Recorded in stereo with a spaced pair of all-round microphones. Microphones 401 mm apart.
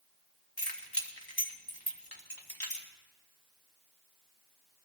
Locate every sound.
0.6 s keys jangling: 65° left (ahead or behind), 1.7 m